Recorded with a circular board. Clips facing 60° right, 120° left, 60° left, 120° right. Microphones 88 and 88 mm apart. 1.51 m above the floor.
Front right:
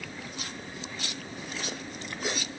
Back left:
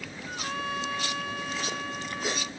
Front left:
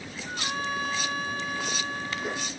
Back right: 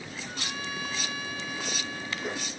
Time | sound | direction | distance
0.2 | a trumpet | 110° left | ?